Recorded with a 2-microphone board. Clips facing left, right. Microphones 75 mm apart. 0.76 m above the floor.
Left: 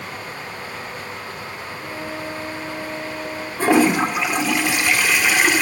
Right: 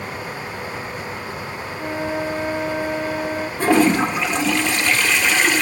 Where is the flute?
70° right (ahead or behind), 1.1 m.